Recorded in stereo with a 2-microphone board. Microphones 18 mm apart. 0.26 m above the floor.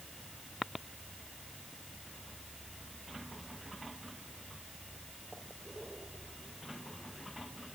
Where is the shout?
I don't hear a shout.